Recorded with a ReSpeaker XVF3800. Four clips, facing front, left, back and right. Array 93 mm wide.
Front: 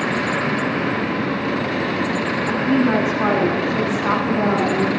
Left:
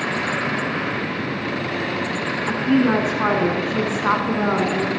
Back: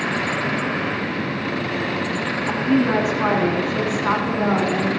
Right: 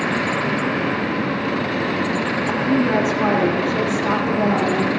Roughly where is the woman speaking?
Left.